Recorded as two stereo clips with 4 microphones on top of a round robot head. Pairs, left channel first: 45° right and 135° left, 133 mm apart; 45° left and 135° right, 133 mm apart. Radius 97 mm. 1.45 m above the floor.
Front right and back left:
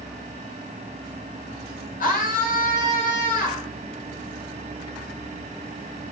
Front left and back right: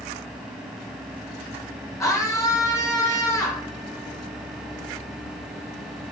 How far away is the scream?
About 5.5 m.